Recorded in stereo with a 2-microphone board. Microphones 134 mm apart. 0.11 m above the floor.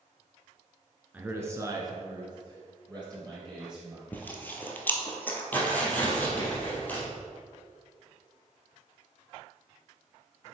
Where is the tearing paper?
15° left (ahead or behind), 2.5 m.